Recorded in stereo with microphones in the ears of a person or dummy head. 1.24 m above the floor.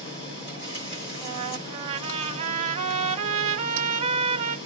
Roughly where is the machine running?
Left.